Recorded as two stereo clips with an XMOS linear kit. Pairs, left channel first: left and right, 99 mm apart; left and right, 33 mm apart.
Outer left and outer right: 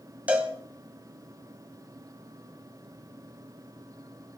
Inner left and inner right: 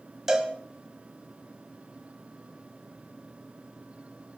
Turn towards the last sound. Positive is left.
turn(degrees=-15)  # may be behind; listen again after turning